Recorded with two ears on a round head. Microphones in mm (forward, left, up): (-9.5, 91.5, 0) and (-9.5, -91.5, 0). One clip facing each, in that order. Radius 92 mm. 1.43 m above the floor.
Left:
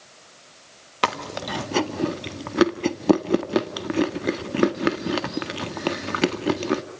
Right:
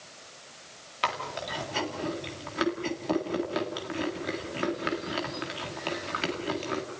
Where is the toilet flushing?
No toilet flushing in this recording.